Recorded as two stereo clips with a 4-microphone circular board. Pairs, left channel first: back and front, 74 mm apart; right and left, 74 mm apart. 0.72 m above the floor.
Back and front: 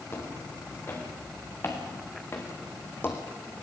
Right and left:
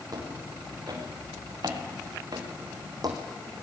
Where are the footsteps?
125° left, 6.5 m; by 3.2 s 120° left, 2.5 m.